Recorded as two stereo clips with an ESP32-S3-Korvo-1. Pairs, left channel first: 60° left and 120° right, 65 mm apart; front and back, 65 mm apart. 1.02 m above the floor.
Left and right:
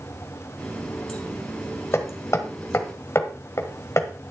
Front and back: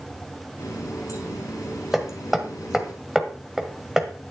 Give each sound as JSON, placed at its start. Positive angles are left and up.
{"t": 0.6, "sound": "a running tap", "azimuth_deg": -20, "distance_m": 5.0}
{"t": 1.9, "sound": "hammering", "azimuth_deg": 100, "distance_m": 1.5}